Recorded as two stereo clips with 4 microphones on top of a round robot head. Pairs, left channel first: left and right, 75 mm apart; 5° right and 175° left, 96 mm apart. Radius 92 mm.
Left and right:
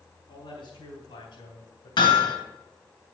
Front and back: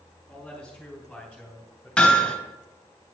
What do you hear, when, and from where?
0.3 s a man speaking: 85° left, 3.5 m
2.0 s hammering: 80° left, 3.5 m